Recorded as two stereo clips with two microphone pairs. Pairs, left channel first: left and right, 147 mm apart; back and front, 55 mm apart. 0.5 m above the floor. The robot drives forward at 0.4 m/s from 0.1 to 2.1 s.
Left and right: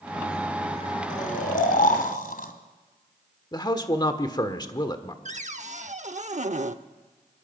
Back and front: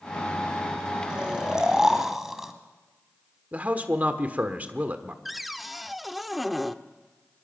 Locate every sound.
1.1 s snoring: 70° left, 2 m; by 2.5 s 80° left, 1.9 m
3.5 s a man speaking: 45° left, 1.3 m
5.2 s a cupboard door: 85° right, 0.7 m